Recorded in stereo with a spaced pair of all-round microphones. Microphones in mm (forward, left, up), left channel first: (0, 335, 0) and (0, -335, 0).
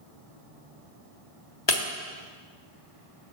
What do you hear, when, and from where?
1.7 s breaking glass: 35° left (ahead or behind), 1.3 m